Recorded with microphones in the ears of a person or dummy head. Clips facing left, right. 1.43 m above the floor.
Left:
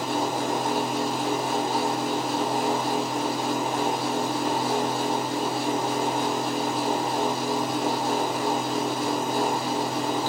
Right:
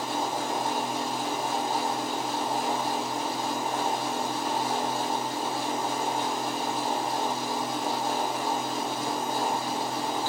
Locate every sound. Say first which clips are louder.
0.0 s a fan: left 4 dB; 55° left (ahead or behind), 1.0 m